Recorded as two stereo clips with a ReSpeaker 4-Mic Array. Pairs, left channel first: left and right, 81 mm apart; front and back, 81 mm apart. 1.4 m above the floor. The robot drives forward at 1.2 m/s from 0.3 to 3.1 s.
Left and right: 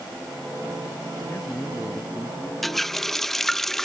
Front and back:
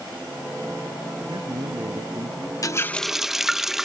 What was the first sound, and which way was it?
A man speaking, 155° left.